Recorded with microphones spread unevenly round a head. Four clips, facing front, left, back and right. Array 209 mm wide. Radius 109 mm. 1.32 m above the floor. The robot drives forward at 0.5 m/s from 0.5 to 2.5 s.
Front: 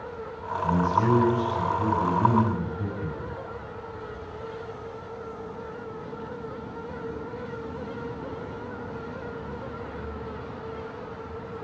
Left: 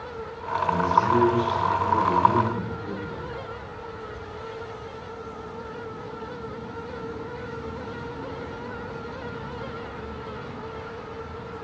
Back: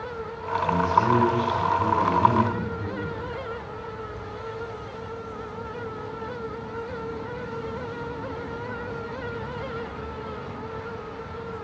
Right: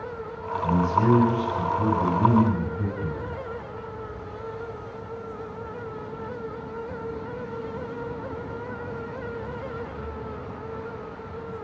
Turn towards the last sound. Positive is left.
turn(degrees=-75)